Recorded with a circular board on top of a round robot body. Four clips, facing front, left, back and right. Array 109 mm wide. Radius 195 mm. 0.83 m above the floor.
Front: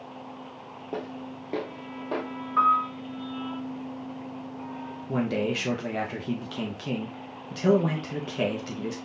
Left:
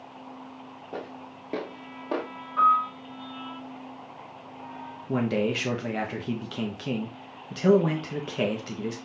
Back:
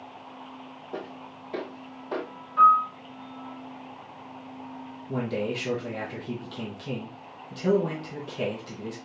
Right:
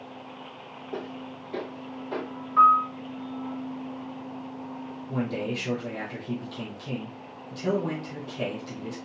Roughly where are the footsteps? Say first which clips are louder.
Right 2 dB, front 3 dB; ahead.